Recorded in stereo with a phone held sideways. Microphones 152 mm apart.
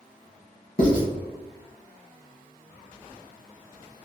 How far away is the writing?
About 1.7 m.